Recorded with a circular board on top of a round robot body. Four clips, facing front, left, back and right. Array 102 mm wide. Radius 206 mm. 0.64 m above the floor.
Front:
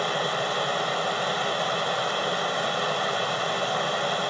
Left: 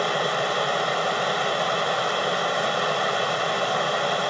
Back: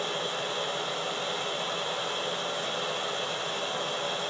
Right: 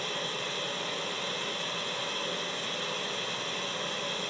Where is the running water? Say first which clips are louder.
Left 13 dB, front 6 dB; 80° left, 0.7 m.